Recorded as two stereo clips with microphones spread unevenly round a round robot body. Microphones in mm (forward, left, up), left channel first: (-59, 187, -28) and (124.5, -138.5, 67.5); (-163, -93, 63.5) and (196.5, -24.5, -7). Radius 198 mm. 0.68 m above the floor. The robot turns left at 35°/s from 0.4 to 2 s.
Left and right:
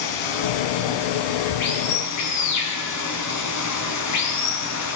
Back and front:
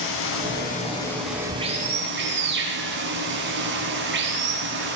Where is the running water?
130° left, 4.5 m; by 5.0 s 75° left, 4.5 m.